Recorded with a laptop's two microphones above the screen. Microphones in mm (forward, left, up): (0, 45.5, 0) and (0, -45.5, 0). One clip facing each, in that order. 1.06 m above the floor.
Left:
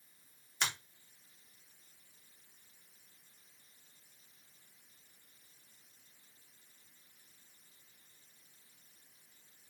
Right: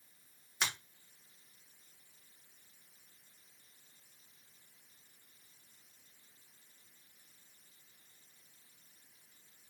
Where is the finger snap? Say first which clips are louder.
Even; 5° right (ahead or behind), 0.8 m.